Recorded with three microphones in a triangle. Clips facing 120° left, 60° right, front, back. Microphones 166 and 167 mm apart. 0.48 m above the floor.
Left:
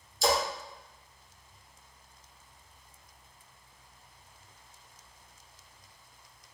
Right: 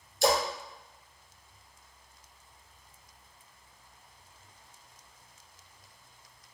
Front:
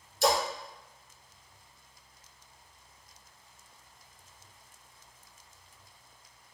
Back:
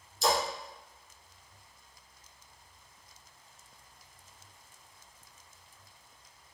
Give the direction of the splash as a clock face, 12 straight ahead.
1 o'clock.